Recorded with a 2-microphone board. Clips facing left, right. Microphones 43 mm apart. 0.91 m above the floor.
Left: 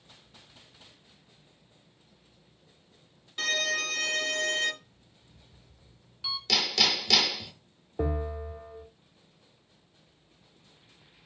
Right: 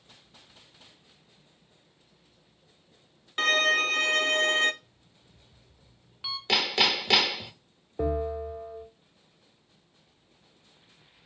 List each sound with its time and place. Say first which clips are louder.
3.4 s a violin: right 6 dB; 45° right (ahead or behind), 0.7 m
4.8 s an alarm clock: even; 20° right (ahead or behind), 1.9 m
6.5 s hammering: right 3 dB; 30° right (ahead or behind), 0.8 m
8.0 s a bell: right 3 dB; 5° left (ahead or behind), 1.0 m